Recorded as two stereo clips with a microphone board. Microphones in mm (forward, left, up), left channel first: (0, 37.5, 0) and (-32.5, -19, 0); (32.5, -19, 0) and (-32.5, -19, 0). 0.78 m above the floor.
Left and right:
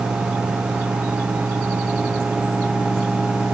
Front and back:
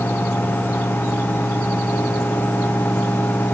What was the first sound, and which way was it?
Only background noise.